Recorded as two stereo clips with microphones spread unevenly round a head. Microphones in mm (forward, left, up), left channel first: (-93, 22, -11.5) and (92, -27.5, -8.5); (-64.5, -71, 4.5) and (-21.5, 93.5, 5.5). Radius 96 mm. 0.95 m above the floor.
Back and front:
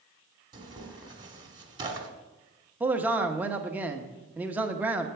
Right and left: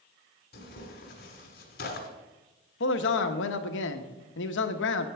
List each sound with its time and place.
0.5 s tearing paper: 80° right, 1.2 m
2.8 s a man speaking: 95° right, 0.8 m